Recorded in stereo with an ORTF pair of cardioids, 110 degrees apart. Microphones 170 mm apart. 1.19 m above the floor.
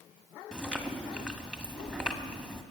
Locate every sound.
0.5 s chewing: 5° left, 1.8 m